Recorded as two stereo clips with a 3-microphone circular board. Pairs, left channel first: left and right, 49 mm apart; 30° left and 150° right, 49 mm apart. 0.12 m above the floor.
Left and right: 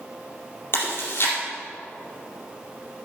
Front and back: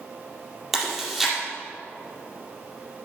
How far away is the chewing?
About 4.5 m.